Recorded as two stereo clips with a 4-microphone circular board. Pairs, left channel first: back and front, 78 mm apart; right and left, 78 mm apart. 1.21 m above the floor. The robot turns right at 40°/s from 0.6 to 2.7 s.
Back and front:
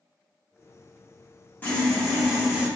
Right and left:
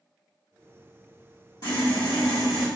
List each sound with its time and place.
1.6 s sawing: 115° right, 1.4 m; by 2.7 s 70° right, 1.4 m